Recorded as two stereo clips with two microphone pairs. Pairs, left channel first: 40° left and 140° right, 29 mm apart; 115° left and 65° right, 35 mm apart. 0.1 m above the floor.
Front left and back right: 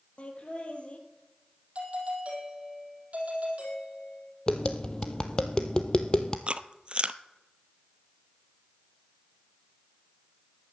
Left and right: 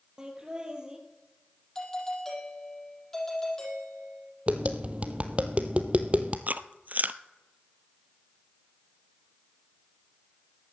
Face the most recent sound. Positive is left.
turn(degrees=-95)